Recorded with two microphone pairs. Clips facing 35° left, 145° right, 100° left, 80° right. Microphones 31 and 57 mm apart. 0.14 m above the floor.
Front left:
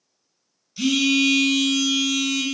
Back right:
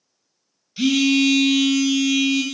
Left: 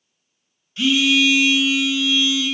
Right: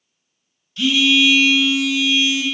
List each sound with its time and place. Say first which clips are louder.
0.8 s a phone buzzing: back right 2 dB, right 1 dB; 165° left, 0.5 m